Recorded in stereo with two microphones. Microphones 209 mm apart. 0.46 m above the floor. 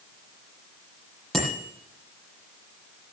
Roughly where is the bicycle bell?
Centre.